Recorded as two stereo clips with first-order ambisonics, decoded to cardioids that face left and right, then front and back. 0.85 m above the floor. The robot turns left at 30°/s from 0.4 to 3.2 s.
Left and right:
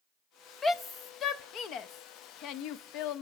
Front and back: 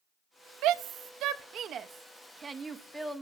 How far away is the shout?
About 0.6 m.